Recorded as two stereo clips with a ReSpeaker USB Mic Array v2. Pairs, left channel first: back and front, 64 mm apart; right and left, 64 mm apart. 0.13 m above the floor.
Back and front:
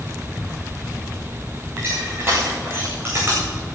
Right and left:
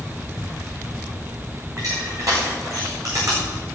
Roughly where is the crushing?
Ahead left.